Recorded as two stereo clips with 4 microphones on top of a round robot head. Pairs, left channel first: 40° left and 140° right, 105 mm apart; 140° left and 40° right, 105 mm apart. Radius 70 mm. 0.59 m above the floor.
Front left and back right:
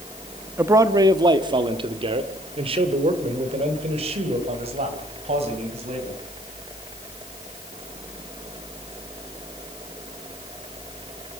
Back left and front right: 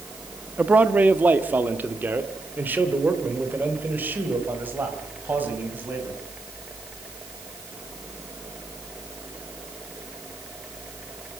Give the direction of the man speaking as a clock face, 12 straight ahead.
3 o'clock.